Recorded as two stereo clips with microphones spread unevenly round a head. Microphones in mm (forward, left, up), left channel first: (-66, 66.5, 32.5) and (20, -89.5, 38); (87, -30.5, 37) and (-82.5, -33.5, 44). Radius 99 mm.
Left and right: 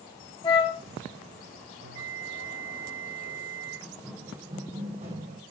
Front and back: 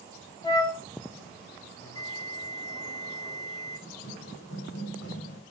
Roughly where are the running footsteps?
Ahead left.